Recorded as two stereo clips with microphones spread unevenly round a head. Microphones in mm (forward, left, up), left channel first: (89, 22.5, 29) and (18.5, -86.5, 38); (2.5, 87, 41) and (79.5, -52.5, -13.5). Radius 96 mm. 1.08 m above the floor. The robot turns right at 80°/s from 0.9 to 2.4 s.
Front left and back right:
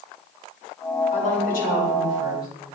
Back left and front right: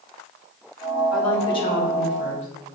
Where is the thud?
No thud in this recording.